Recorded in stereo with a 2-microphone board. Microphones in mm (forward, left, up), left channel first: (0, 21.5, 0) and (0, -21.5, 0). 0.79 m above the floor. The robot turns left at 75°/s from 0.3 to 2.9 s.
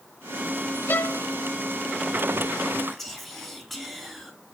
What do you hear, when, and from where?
0.9 s a violin: 55° left (ahead or behind), 0.7 m; by 1.2 s 35° left (ahead or behind), 0.7 m
2.9 s whispering: 5° left (ahead or behind), 1.9 m